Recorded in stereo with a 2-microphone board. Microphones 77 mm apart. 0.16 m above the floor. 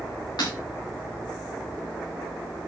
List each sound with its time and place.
0.4 s breaking glass: 65° left (ahead or behind), 8.5 m